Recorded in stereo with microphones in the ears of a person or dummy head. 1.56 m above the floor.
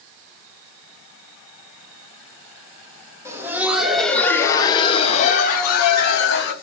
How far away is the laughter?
About 1.1 m.